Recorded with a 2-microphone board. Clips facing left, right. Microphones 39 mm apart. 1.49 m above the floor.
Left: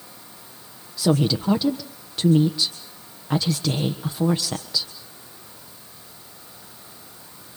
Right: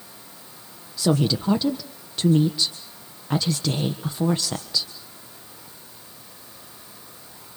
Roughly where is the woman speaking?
Centre.